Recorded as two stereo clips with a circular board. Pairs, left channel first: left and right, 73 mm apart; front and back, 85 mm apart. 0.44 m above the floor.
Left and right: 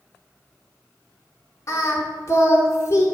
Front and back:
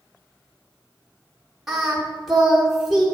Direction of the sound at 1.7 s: 95° left.